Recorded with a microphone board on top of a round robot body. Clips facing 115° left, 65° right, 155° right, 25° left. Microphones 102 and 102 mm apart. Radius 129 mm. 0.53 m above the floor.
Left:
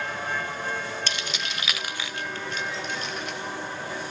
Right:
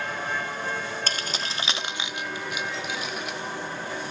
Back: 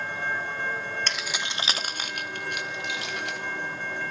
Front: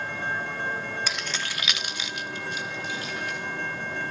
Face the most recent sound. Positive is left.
turn(degrees=-155)